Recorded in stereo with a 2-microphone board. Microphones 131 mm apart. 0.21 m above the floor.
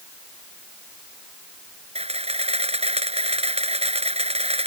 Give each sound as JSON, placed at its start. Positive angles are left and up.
{"t": 1.9, "sound": "a camera shutter", "side_deg": -50}